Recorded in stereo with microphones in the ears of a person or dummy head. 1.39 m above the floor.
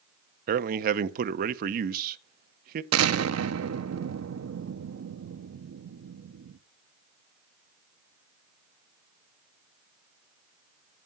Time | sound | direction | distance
0.5 | a man speaking | 55° right (ahead or behind) | 0.8 m
2.9 | an explosion | 75° right (ahead or behind) | 0.9 m